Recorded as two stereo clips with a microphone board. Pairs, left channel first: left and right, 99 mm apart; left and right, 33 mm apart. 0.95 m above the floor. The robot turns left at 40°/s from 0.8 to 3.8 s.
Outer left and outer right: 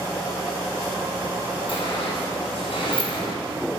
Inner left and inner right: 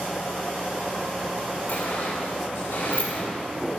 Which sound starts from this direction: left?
A sliding door, at 1.7 s.